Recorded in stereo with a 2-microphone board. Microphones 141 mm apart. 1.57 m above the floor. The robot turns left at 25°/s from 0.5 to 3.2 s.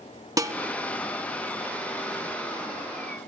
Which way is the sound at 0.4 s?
25° right (ahead or behind).